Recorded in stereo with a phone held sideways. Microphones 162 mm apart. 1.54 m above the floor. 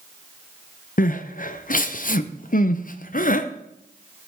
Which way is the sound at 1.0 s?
55° left (ahead or behind).